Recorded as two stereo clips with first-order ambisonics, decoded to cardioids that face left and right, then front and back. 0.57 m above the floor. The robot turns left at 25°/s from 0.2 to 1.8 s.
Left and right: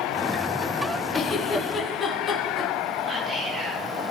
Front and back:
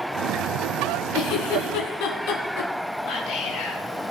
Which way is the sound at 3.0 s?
25° right.